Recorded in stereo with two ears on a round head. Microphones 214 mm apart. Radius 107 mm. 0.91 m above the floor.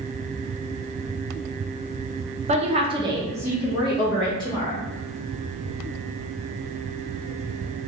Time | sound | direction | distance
2.5 | a woman speaking | 30° right (ahead or behind) | 0.6 m